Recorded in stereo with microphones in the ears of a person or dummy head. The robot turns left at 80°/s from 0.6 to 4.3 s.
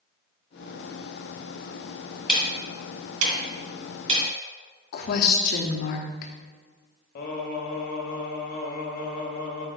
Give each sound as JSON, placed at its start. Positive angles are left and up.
{"t": 2.3, "sound": "ticking", "side_deg": 5, "distance_m": 2.5}
{"t": 4.9, "sound": "a woman speaking", "side_deg": 50, "distance_m": 0.7}
{"t": 7.2, "sound": "singing", "side_deg": 55, "distance_m": 1.2}